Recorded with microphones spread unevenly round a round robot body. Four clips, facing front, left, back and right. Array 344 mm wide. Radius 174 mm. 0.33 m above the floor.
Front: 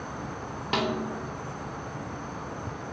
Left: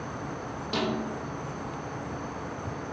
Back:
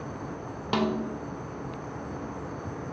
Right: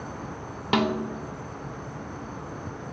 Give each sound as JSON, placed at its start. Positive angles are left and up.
{"t": 0.7, "sound": "a snare drum", "azimuth_deg": -75, "distance_m": 0.6}